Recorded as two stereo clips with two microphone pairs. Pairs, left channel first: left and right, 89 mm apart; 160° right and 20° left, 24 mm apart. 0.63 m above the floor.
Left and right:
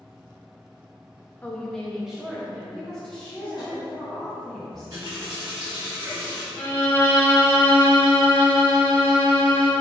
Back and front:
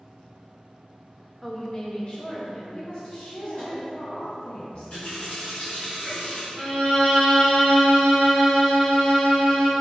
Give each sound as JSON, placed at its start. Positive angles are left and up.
{"t": 1.4, "sound": "a woman speaking", "azimuth_deg": 120, "distance_m": 0.5}
{"t": 2.7, "sound": "a woman speaking", "azimuth_deg": 170, "distance_m": 1.1}
{"t": 4.7, "sound": "a running tap", "azimuth_deg": -130, "distance_m": 1.7}
{"t": 6.6, "sound": "a violin", "azimuth_deg": 160, "distance_m": 1.0}